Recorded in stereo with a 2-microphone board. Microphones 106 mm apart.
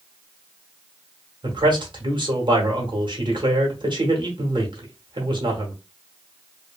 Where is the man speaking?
45° right (ahead or behind), 1.1 m.